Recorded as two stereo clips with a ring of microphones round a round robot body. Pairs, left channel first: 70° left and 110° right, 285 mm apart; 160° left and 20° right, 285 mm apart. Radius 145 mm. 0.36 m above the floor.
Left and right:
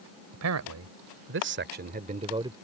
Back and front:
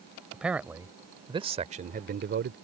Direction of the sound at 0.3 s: 110° right.